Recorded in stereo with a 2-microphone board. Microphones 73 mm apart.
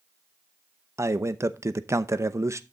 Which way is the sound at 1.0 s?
40° right (ahead or behind).